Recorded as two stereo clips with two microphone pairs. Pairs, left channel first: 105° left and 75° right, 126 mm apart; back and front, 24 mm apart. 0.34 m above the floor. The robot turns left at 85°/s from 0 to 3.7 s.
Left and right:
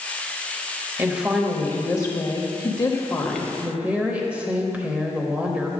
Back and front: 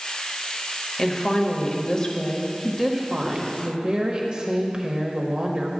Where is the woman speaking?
135° right, 1.2 m; by 5.7 s 5° right, 1.2 m.